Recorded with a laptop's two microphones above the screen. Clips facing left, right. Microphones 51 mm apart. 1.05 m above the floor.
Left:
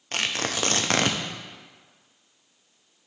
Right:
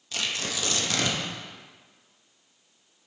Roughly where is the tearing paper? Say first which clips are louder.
Left 4 dB; left.